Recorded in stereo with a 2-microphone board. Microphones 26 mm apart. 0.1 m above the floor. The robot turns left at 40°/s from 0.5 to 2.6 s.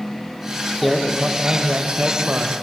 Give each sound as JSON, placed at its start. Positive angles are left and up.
{"t": 0.8, "sound": "a man speaking", "azimuth_deg": 5, "distance_m": 4.0}